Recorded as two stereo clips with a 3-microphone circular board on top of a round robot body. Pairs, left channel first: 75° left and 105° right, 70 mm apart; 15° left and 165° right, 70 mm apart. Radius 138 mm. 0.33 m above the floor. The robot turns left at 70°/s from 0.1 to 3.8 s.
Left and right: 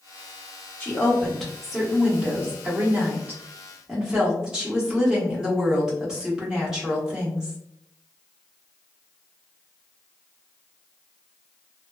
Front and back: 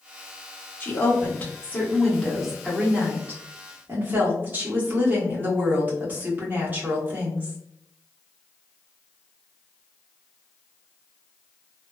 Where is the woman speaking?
40° left, 1.5 m; by 7.6 s 170° right, 1.5 m.